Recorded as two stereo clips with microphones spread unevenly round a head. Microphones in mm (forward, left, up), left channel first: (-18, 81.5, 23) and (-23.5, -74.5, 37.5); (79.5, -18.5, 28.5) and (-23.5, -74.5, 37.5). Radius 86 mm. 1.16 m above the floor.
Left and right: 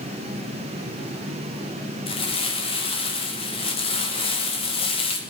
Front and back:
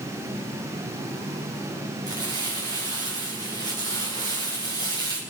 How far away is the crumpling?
About 1.9 m.